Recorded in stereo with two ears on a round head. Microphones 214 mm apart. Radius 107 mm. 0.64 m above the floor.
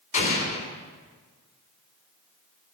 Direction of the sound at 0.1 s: 35° left (ahead or behind).